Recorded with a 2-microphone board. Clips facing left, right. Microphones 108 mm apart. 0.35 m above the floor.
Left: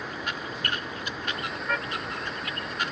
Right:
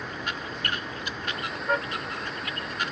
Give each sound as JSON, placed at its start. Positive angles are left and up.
{"t": 1.7, "sound": "a car horn", "side_deg": -25}